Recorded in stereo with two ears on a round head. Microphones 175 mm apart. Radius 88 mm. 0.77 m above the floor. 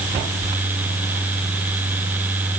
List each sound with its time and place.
Only background noise.